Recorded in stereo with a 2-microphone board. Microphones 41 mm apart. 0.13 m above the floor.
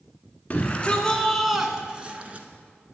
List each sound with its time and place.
0.5 s a shout: 35° left (ahead or behind), 1.2 m; by 2.5 s 40° right (ahead or behind), 1.4 m